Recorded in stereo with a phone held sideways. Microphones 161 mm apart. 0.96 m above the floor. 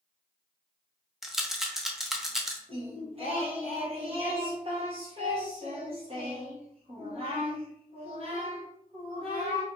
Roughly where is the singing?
Right.